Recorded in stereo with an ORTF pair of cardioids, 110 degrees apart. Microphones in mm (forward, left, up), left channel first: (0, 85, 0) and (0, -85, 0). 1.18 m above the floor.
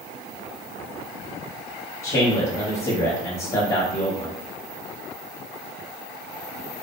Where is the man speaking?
35° left, 0.9 m.